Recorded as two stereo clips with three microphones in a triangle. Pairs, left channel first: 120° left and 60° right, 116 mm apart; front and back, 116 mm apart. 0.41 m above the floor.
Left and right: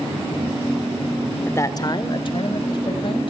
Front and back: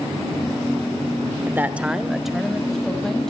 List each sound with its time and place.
1.5 s a man speaking: 155° left, 0.9 m; by 3.3 s 85° left, 3 m